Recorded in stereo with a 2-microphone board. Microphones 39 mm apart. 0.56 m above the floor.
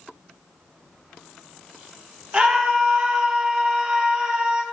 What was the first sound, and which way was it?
A scream, 25° right (ahead or behind).